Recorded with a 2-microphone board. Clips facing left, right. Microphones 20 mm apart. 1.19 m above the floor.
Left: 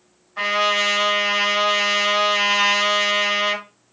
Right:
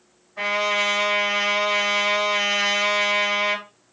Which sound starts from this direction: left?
A trumpet, at 0.4 s.